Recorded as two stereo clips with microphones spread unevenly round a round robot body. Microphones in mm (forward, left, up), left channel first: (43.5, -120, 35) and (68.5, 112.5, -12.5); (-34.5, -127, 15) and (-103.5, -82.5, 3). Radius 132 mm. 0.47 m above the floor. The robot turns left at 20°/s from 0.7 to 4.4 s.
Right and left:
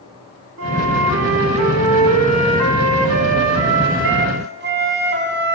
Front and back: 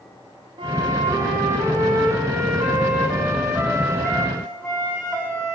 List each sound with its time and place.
0.6 s a flute: 120° left, 4 m; by 5.5 s 45° left, 4 m